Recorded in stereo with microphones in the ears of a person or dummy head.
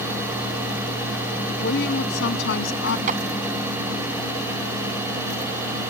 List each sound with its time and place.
1.6 s a woman speaking: 60° left (ahead or behind); by 3.0 s 65° left (ahead or behind)
3.1 s a clap: 40° right (ahead or behind)